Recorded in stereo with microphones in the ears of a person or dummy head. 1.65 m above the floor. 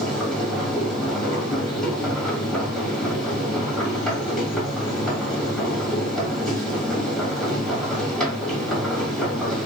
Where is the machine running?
Centre (ahead or behind), 1.8 m.